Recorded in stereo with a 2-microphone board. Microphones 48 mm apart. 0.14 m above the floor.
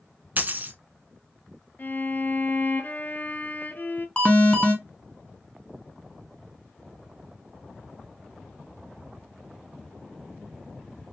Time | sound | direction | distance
0.4 | a dropped coin | 40° right (ahead or behind) | 0.6 m
1.8 | a violin | 40° left (ahead or behind) | 0.5 m
4.2 | an alarm | 25° left (ahead or behind) | 0.8 m